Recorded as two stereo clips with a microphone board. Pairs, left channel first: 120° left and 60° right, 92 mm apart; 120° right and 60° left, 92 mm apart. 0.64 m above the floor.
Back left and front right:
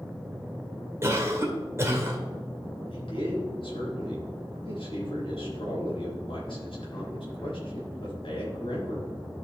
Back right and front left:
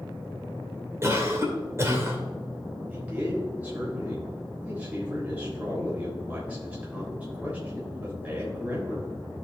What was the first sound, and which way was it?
A cough, straight ahead.